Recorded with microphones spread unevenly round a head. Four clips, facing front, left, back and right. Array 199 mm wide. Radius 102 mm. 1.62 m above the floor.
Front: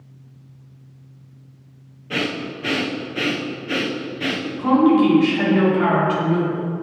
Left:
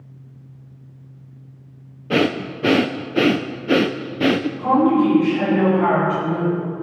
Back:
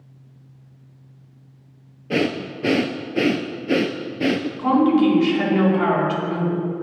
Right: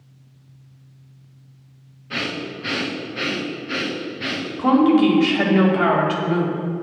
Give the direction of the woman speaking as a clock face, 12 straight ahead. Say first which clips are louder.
Right 2 dB, front 2 dB; 3 o'clock.